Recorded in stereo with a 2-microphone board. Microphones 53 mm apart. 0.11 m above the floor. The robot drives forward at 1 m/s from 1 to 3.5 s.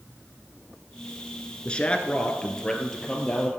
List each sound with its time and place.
1.6 s a man speaking: 20° left (ahead or behind), 1.1 m; by 3.5 s 10° left (ahead or behind), 2.5 m